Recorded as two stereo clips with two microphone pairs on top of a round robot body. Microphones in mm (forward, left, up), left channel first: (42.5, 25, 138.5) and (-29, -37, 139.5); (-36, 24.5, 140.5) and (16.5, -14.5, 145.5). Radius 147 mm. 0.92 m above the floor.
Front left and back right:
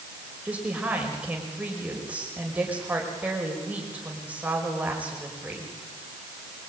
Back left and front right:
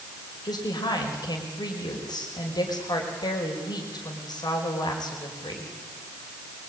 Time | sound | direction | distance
0.5 | a woman speaking | 145° left | 5.5 m